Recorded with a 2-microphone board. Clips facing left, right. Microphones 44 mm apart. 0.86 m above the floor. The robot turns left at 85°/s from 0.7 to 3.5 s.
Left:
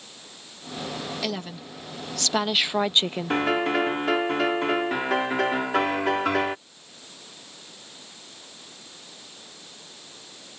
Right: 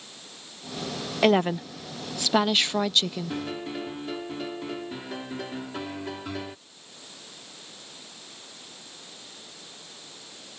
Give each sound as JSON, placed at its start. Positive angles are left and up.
{"t": 1.2, "sound": "a woman speaking", "azimuth_deg": -75}
{"t": 3.3, "sound": "a piano", "side_deg": 60}